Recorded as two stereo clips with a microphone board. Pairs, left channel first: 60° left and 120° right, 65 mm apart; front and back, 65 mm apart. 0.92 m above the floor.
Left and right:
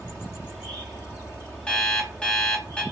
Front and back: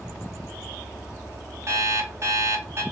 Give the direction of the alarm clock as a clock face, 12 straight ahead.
7 o'clock.